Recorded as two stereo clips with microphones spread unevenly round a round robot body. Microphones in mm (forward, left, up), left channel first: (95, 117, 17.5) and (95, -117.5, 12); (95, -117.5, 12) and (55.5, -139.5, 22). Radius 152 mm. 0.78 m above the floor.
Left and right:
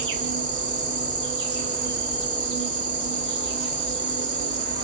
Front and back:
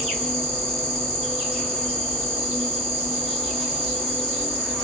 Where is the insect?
35° right, 1.6 m.